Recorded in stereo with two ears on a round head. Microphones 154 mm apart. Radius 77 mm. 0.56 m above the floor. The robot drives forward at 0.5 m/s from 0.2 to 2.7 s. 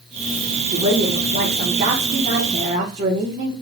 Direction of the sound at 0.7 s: 35° right (ahead or behind).